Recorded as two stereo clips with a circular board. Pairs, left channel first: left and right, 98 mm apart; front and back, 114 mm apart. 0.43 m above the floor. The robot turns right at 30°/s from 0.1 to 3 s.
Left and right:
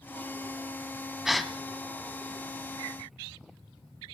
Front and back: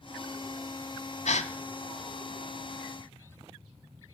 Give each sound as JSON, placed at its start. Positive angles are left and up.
{"t": 1.2, "sound": "a gasp", "azimuth_deg": -5, "distance_m": 1.0}